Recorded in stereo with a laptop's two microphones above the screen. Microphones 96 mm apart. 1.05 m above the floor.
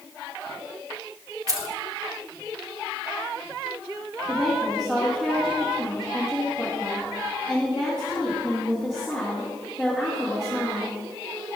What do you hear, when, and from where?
1.5 s keys jangling: 35° right (ahead or behind), 1.1 m
4.3 s a woman speaking: 5° right (ahead or behind), 1.6 m